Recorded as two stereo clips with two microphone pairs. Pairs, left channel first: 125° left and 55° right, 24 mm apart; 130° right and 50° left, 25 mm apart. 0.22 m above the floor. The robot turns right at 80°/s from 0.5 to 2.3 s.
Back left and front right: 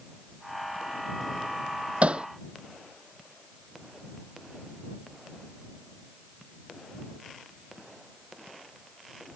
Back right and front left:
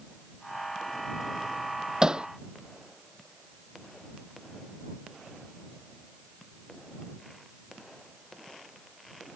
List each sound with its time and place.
2.0 s hammering: 20° right; by 2.3 s straight ahead